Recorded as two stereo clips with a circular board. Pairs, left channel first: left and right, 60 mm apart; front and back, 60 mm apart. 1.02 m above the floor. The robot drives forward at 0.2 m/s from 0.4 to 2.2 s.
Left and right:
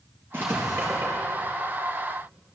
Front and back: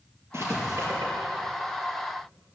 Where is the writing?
145° right, 4 m.